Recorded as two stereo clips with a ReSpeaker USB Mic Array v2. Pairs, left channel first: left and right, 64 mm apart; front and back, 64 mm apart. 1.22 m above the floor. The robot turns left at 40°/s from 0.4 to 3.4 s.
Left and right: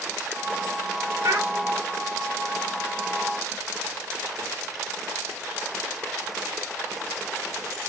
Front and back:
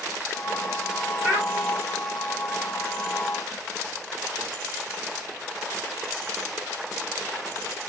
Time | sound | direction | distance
1.2 | a child speaking | 110° right | 1.4 m